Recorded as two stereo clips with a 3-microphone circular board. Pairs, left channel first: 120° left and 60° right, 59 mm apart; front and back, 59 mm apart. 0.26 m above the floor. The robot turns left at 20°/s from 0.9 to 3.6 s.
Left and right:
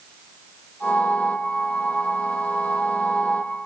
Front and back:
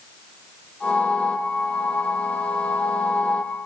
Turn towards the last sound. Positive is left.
No sound to turn to.